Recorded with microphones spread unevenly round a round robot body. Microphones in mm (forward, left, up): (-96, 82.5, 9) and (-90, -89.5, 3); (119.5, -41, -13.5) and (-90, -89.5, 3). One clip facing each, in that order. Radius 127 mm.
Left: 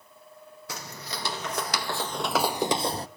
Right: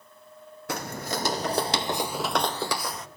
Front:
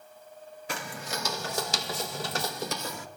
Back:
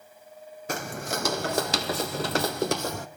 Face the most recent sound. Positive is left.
turn(degrees=145)